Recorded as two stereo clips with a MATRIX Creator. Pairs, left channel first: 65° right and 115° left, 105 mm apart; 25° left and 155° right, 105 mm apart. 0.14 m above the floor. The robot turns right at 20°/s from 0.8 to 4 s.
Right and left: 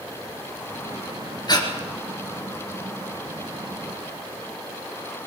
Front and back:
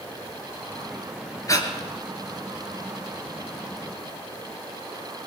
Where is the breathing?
30° right, 3 m; by 1.7 s 25° right, 3 m.